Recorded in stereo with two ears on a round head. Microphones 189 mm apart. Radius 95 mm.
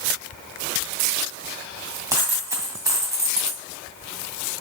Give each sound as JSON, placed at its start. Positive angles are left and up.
{"t": 2.1, "sound": "a dropped coin", "side_deg": -15, "distance_m": 2.0}